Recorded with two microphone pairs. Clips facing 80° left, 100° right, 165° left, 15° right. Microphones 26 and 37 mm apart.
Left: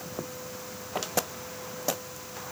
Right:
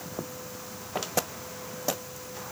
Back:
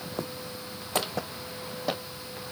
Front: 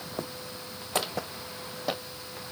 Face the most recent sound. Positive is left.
No sound to turn to.